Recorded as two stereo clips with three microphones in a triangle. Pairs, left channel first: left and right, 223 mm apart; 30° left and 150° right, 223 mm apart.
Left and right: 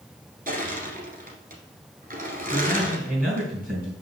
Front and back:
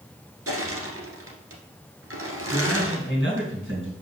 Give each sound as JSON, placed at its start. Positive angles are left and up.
{"t": 0.5, "sound": "crushing", "azimuth_deg": -145, "distance_m": 1.4}
{"t": 2.5, "sound": "a man speaking", "azimuth_deg": -140, "distance_m": 3.5}